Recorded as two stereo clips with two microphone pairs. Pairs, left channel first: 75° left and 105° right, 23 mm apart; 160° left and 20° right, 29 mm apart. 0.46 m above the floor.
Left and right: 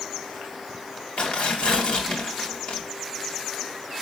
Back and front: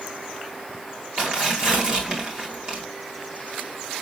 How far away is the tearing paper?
About 2.5 m.